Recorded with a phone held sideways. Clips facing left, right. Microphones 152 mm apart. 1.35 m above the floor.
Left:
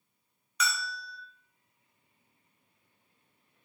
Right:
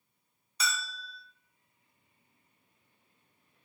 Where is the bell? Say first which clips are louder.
Left 2 dB; 30° right (ahead or behind), 0.7 m.